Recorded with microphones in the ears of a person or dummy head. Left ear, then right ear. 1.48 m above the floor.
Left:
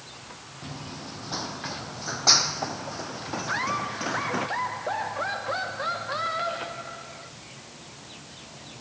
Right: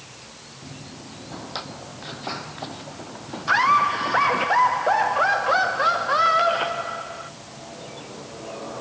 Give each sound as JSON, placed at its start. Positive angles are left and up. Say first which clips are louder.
{"t": 0.6, "sound": "running footsteps", "louder": "left 4 dB", "side_deg": 65}
{"t": 3.5, "sound": "laughter", "louder": "right 12 dB", "side_deg": -50}